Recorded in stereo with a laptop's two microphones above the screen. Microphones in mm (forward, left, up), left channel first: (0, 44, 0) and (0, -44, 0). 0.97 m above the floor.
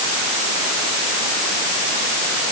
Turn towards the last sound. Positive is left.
No sound to turn to.